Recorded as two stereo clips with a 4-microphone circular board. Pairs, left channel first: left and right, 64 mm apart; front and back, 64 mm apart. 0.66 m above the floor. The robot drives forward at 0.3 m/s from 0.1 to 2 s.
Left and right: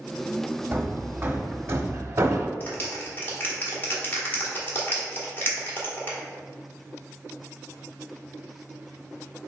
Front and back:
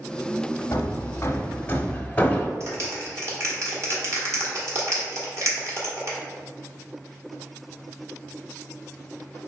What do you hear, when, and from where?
0.7 s hammering: 35° right, 0.8 m; by 2.5 s 65° right, 0.5 m
2.6 s a clap: 145° left, 1.5 m